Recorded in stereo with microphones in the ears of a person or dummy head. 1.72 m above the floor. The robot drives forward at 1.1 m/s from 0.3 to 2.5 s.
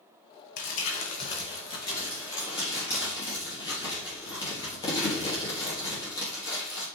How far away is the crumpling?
About 1.1 m.